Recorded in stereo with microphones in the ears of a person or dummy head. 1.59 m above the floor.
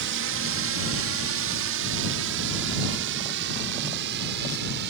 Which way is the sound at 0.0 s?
65° right (ahead or behind).